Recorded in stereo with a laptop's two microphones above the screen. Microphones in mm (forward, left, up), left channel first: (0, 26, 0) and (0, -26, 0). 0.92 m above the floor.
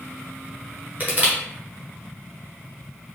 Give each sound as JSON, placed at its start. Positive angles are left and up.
{"t": 1.0, "sound": "crushing", "side_deg": -35, "distance_m": 0.7}